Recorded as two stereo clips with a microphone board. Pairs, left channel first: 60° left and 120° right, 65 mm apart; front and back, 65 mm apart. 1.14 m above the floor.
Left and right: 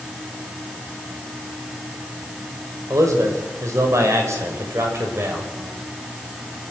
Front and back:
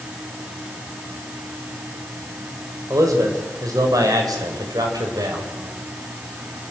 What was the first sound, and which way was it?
A man speaking, 155° right.